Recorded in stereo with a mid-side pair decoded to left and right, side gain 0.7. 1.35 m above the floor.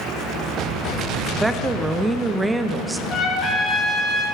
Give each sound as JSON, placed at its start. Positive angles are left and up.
{"t": 1.3, "sound": "a woman speaking", "azimuth_deg": -10, "distance_m": 0.9}
{"t": 3.1, "sound": "a trumpet", "azimuth_deg": 35, "distance_m": 4.0}